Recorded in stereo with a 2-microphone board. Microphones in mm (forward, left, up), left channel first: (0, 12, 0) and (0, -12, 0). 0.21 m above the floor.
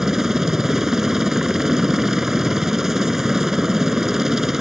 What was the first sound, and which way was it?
A helicopter, 20° right (ahead or behind).